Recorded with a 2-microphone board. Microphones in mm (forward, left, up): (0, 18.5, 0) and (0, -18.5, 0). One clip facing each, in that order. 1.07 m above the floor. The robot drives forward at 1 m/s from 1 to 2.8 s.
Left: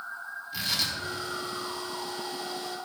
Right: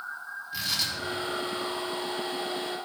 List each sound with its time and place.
0.5 s tearing paper: 5° right (ahead or behind), 2.5 m